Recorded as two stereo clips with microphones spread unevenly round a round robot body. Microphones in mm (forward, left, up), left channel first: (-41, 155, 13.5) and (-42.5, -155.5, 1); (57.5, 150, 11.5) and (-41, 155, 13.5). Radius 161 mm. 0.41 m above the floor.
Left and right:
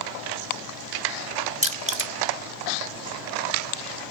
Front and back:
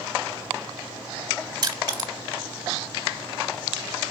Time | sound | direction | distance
1.6 | crushing | 150° right | 1.1 m